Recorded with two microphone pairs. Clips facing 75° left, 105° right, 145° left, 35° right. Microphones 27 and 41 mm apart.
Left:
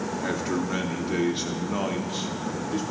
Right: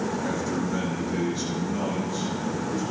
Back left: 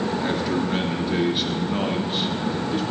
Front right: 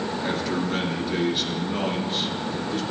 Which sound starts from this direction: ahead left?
A man speaking, at 0.2 s.